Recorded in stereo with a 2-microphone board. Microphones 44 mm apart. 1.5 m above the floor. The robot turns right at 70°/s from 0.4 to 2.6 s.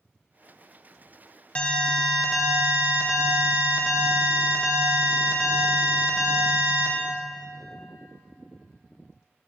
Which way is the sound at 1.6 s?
135° left.